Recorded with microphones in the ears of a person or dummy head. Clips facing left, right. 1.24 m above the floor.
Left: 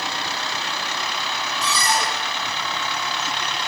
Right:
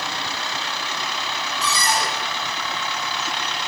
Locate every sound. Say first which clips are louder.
1.6 s a cupboard door: even; 70° right (ahead or behind), 4.5 m